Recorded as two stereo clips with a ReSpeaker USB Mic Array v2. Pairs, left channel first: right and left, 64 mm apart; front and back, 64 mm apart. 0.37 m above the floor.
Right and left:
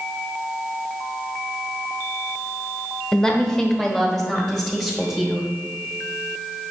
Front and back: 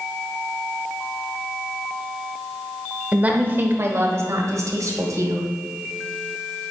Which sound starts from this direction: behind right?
A woman speaking, at 3.1 s.